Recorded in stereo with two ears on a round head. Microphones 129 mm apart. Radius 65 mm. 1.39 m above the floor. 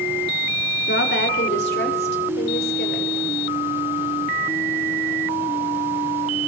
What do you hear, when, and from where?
0.9 s a woman speaking: 85° left, 3.5 m; by 3.1 s 75° left (ahead or behind), 6 m